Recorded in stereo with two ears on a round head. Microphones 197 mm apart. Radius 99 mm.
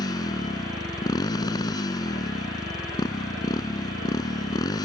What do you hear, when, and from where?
0.0 s a motorcycle: 15° left (ahead or behind)